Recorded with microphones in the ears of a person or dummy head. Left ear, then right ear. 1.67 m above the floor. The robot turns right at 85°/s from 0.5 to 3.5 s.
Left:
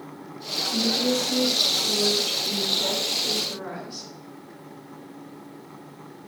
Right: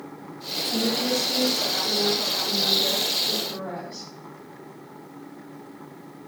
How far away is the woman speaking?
About 0.9 m.